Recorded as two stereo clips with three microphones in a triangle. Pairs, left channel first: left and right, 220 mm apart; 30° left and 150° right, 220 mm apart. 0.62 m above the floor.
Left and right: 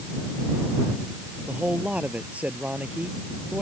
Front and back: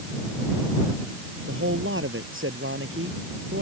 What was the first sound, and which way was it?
A man speaking, 175° right.